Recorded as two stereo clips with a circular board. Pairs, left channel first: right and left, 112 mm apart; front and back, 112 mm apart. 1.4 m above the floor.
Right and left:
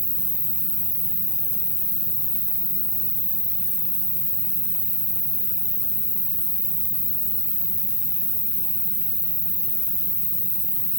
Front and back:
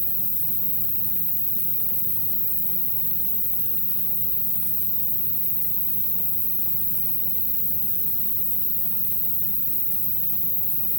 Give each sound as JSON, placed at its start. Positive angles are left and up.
{"t": 0.0, "sound": "an insect", "azimuth_deg": -85, "distance_m": 1.5}